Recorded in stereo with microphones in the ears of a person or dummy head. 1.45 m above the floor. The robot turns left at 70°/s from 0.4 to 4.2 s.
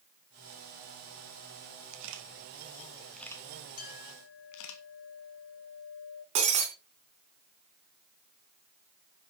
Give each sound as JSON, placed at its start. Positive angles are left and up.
{"t": 1.9, "sound": "a camera shutter", "side_deg": -85, "distance_m": 1.9}
{"t": 3.8, "sound": "a clink", "azimuth_deg": 140, "distance_m": 2.5}
{"t": 6.3, "sound": "breaking glass", "side_deg": -30, "distance_m": 2.5}